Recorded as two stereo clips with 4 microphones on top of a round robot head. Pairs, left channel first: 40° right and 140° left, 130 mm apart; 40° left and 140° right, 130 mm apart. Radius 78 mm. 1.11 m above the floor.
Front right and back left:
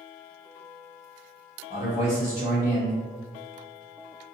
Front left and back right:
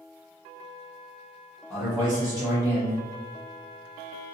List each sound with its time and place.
1.7 s a man speaking: 65° right, 1.3 m